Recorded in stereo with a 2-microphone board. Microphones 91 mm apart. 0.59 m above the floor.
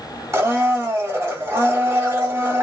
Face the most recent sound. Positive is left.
turn(degrees=-35)  # may be behind; listen again after turning